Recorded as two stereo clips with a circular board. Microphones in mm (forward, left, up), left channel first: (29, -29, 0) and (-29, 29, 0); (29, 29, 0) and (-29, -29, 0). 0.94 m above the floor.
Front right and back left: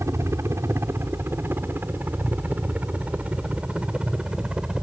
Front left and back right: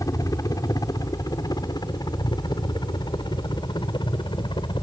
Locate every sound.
0.0 s a helicopter: 85° left; by 4.8 s 55° left